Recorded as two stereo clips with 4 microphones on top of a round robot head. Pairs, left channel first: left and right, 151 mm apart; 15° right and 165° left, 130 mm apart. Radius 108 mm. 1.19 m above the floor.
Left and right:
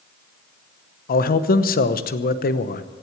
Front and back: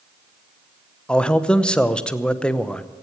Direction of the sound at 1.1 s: 70° left.